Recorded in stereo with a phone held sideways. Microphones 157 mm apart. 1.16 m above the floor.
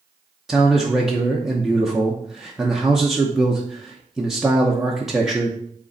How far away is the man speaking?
About 0.8 m.